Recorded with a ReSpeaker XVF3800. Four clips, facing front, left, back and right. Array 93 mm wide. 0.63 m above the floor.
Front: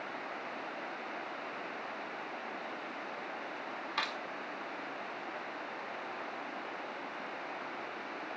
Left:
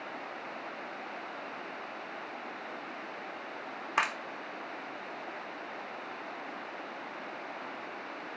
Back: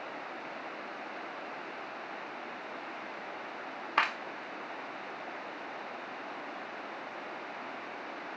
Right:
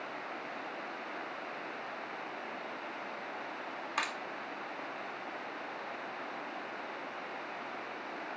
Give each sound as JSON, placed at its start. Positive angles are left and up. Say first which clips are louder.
{"t": 4.0, "sound": "a clap", "louder": "left 6 dB, back 8 dB", "azimuth_deg": 145, "distance_m": 0.8}